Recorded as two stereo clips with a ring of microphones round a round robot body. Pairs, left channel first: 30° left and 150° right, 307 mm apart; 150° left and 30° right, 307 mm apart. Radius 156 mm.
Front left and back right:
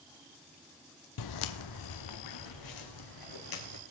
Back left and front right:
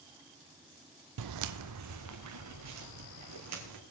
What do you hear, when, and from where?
1.2 s footsteps: straight ahead, 0.7 m; by 3.8 s 10° left, 4.5 m